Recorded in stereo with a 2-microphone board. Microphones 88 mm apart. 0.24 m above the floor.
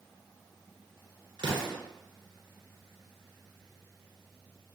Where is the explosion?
60° right (ahead or behind), 2.5 m.